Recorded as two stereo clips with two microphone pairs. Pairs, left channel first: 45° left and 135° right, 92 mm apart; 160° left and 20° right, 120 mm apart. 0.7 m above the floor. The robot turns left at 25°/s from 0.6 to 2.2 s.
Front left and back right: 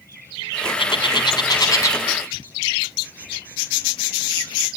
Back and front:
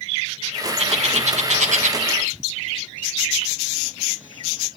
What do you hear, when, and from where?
0.8 s a bird: 15° left, 2.5 m; by 2.0 s 15° right, 2.5 m